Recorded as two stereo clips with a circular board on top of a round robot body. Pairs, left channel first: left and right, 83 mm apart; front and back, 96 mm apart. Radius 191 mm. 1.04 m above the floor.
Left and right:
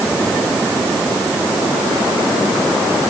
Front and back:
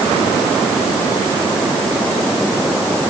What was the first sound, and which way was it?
Only background noise.